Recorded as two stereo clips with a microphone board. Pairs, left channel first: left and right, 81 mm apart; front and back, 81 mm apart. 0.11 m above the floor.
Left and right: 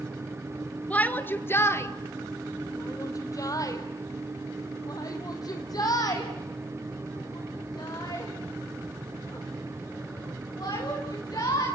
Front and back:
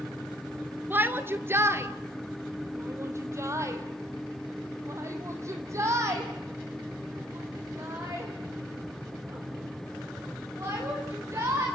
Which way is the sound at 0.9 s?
145° left.